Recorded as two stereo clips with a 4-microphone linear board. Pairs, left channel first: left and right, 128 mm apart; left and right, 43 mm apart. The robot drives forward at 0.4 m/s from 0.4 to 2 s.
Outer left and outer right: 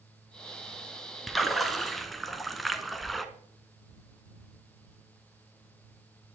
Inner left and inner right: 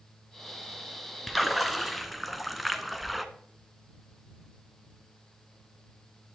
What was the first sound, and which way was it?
A splash, centre (ahead or behind).